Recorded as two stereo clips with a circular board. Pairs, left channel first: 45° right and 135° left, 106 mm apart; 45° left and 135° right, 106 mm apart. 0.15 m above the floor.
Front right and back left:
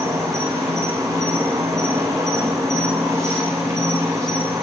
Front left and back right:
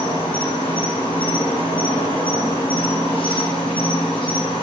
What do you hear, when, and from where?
0.0 s an insect: 75° left, 1.1 m